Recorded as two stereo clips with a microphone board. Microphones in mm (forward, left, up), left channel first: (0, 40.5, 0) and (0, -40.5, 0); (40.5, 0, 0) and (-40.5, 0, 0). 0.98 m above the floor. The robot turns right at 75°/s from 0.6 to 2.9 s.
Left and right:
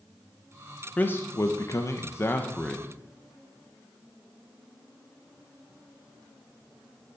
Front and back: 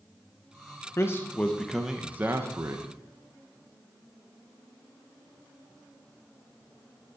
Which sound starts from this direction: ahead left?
A man speaking, at 1.0 s.